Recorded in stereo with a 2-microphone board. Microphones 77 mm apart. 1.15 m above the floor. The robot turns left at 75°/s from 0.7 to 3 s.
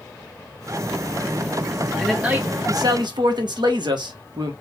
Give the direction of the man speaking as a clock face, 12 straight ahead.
12 o'clock.